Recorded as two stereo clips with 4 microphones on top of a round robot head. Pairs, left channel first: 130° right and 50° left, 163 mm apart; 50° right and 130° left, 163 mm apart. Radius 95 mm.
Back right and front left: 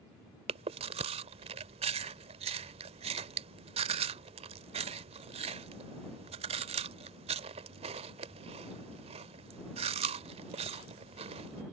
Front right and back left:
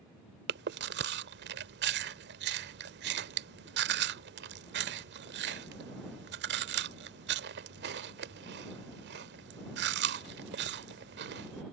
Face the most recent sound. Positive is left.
turn(degrees=110)